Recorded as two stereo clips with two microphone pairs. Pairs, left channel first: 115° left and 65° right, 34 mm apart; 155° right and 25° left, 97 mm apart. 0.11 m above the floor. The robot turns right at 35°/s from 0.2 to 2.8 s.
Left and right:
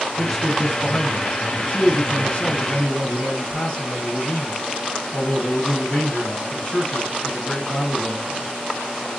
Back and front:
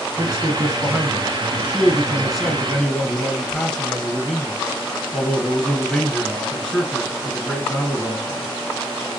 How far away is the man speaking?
About 1.3 m.